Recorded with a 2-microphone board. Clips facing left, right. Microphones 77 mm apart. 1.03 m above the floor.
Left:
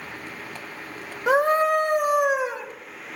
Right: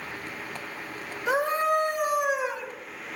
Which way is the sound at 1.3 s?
65° left (ahead or behind).